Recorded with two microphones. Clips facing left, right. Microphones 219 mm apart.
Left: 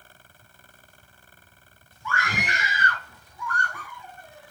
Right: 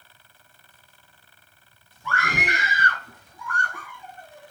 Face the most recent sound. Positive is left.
turn(degrees=-45)  # may be behind; listen again after turning